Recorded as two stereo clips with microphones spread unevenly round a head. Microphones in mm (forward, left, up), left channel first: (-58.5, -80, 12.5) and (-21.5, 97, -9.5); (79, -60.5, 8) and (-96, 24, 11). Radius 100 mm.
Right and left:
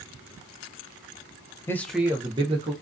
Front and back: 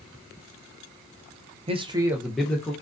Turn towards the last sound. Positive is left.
turn(degrees=50)